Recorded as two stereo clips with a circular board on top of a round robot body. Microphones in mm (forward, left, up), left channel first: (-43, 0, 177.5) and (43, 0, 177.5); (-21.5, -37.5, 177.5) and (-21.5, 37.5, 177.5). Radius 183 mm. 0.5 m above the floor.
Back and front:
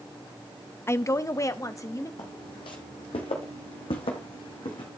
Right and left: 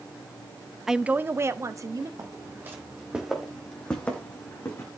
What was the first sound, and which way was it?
A woman speaking, 175° left.